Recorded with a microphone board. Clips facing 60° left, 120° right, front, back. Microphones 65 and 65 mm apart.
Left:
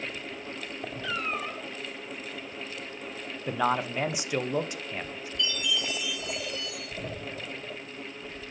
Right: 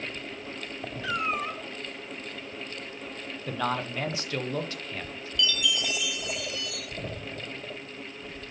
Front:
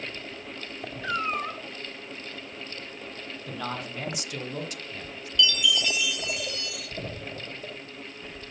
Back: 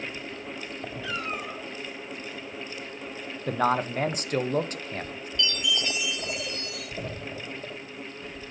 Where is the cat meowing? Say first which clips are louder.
Right 4 dB, front 6 dB; 45° right, 2 m.